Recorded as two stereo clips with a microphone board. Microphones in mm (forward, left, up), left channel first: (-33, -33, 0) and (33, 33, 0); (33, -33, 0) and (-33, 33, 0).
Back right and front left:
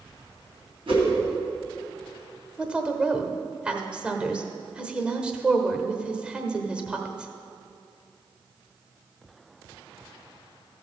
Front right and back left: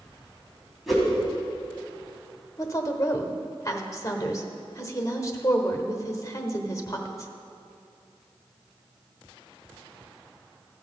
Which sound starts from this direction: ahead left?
A whoosh, at 0.9 s.